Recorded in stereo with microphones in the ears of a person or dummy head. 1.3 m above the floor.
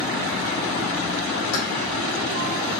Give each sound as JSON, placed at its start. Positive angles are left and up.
{"t": 1.5, "sound": "keys jangling", "side_deg": 80, "distance_m": 1.7}